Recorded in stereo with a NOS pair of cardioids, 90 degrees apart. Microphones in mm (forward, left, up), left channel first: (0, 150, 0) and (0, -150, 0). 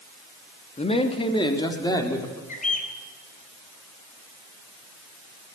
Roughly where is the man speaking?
Ahead.